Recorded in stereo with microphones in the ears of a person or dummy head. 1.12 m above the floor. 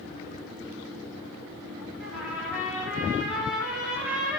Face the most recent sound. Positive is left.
turn(degrees=-5)  # may be behind; listen again after turning